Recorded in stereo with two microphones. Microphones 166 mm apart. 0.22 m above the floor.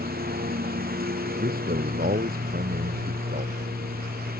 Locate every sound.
0.0 s a lawn mower: 65° right (ahead or behind)
1.4 s a man speaking: 65° right (ahead or behind)